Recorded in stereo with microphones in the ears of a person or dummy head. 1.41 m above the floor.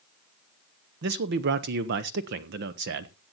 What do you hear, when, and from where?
1.0 s a man speaking: 55° right (ahead or behind), 0.9 m